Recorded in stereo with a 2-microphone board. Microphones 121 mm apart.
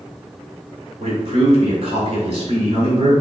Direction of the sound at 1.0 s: 55° right (ahead or behind).